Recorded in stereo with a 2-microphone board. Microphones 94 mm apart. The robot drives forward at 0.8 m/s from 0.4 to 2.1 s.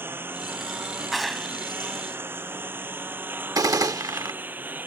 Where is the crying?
No crying in this recording.